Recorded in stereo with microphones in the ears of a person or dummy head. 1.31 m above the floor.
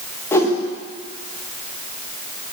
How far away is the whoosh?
About 1.2 m.